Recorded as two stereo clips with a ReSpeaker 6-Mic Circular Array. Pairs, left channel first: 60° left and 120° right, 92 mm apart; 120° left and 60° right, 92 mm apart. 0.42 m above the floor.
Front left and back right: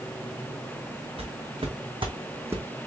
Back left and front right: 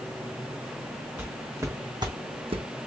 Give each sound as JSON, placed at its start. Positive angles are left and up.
{"t": 1.2, "sound": "footsteps", "azimuth_deg": -130, "distance_m": 1.9}